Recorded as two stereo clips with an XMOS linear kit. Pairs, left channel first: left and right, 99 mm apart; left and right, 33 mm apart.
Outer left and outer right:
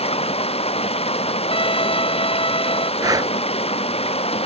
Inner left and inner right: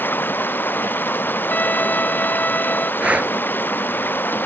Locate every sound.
0.0 s running water: 85° left
1.5 s a violin: 65° left (ahead or behind)
3.0 s breathing: 40° right (ahead or behind)